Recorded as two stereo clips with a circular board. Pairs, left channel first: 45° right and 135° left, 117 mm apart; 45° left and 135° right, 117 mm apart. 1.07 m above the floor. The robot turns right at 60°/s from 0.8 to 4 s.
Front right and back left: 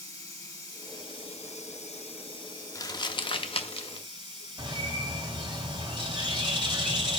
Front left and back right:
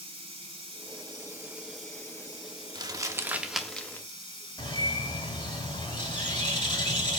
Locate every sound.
0.0 s running water: 105° right, 3 m; by 7.2 s 90° left, 3 m
2.8 s crumpling: 95° right, 0.8 m; by 4.1 s 20° right, 0.8 m
4.6 s a bird: 90° left, 2.5 m